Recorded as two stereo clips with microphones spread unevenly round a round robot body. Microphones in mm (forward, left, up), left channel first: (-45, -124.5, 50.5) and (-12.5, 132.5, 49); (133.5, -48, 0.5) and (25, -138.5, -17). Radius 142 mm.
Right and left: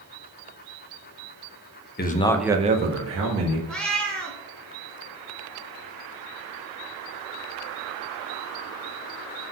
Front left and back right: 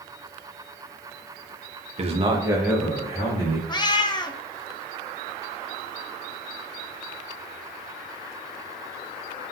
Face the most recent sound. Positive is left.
turn(degrees=-10)